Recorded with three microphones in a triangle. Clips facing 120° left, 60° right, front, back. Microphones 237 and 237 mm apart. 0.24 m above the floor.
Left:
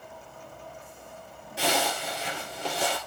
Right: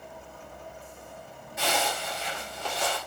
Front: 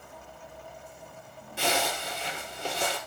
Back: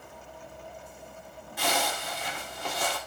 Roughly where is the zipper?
Ahead left.